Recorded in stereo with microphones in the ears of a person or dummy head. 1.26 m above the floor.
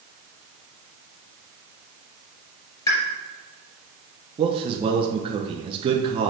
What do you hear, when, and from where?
2.9 s a pop: 15° left (ahead or behind), 3.5 m
4.4 s a man speaking: 35° right (ahead or behind), 0.9 m